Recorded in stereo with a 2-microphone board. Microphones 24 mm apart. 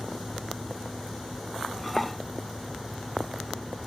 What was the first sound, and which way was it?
Dishes clattering, centre (ahead or behind).